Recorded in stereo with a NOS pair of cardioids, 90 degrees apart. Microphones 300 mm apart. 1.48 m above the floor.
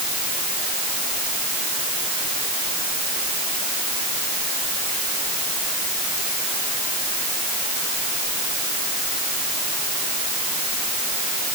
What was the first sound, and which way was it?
Only background noise.